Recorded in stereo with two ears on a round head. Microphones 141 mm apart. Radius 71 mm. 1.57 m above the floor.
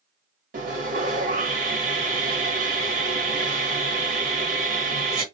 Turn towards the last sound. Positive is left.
turn(degrees=-55)  # may be behind; listen again after turning